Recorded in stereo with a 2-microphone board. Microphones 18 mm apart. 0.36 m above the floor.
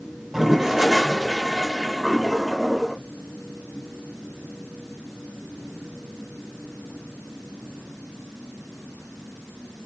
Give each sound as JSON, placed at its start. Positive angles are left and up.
{"t": 0.3, "sound": "a toilet flushing", "side_deg": -15, "distance_m": 0.5}